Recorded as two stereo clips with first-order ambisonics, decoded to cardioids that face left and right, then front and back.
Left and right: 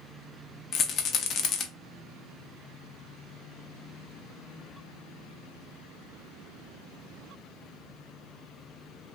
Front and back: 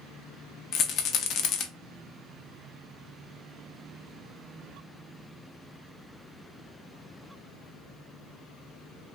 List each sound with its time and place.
0.7 s a rattle: 40° left, 0.5 m